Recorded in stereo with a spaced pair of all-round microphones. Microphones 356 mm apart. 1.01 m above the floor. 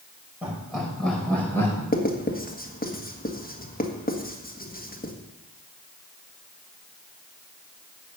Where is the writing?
25° left (ahead or behind), 1.6 m.